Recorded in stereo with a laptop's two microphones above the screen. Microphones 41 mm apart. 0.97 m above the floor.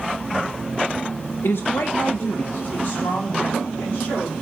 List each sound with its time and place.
1.4 s a woman speaking: 65° left (ahead or behind), 0.5 m; by 4.3 s 50° left (ahead or behind), 3 m